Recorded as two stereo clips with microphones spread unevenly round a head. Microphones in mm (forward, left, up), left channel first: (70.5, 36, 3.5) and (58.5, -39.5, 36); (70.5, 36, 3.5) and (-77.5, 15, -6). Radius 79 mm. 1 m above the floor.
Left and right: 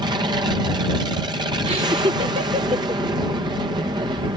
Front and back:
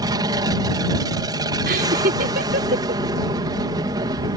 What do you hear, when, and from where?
0.0 s an aircraft: 125° right
1.7 s laughter: 140° right